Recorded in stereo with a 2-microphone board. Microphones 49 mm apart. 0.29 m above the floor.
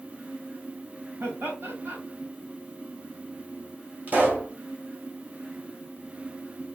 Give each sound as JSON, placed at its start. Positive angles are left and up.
{"t": 1.2, "sound": "laughter", "side_deg": -50, "distance_m": 1.8}
{"t": 4.1, "sound": "a pop", "side_deg": -35, "distance_m": 1.2}